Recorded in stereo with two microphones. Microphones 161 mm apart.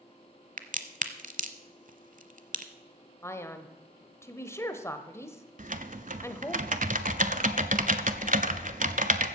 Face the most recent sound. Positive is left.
turn(degrees=-55)  # may be behind; listen again after turning